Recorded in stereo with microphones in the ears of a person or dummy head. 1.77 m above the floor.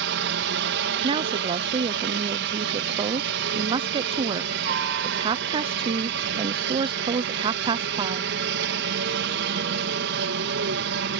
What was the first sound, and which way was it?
A helicopter, 60° right (ahead or behind).